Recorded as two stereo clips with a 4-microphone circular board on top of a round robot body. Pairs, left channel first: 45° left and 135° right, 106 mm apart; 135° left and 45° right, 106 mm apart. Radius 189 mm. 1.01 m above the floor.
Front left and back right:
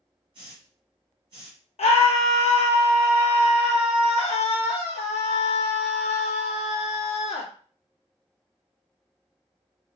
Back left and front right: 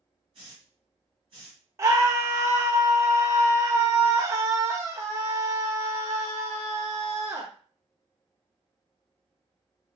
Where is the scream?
20° left, 0.6 m.